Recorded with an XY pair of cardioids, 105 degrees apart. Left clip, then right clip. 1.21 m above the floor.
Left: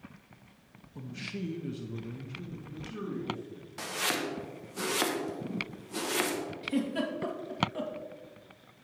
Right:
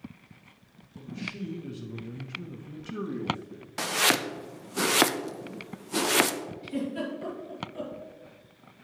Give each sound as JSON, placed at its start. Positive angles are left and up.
{"t": 0.9, "sound": "a man speaking", "azimuth_deg": 45, "distance_m": 1.2}
{"t": 3.8, "sound": "chopping", "azimuth_deg": -60, "distance_m": 0.5}
{"t": 6.6, "sound": "a giggle", "azimuth_deg": 45, "distance_m": 1.9}